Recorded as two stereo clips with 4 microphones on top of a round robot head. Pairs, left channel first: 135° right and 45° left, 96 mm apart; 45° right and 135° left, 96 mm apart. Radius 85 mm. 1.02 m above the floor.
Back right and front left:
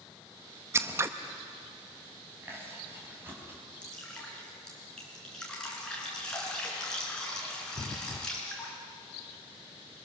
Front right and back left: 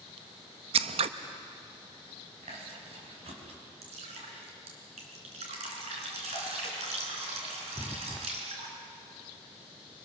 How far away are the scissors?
About 0.7 m.